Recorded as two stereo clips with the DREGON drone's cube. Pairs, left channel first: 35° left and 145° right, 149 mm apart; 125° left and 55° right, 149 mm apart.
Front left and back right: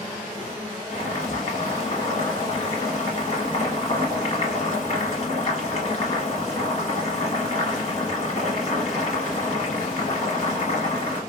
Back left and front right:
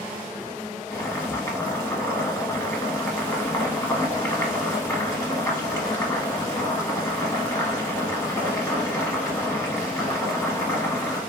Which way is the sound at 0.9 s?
60° left.